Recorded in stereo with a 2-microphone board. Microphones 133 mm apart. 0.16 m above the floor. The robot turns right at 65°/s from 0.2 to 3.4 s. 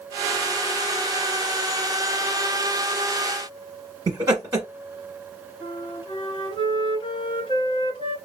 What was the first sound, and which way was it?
Laughter, 30° right (ahead or behind).